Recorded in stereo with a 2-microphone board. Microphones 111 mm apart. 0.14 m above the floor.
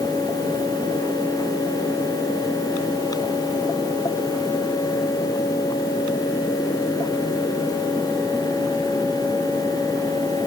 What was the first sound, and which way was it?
Only background noise.